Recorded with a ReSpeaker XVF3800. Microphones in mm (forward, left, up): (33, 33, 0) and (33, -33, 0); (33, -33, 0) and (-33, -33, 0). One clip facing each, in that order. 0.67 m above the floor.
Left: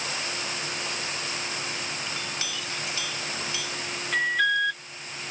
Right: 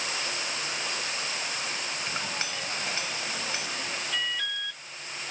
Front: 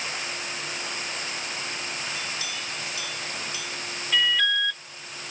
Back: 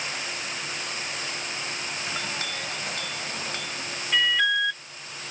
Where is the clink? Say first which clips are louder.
Right 1 dB, back 2 dB; 145° right.